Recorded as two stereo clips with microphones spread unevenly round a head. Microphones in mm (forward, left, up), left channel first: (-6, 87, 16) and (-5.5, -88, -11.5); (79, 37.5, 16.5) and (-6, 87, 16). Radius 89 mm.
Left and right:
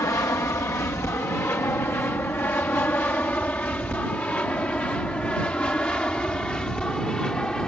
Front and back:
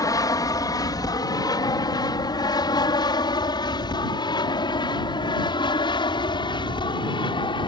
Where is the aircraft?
15° left; by 7.7 s 5° left.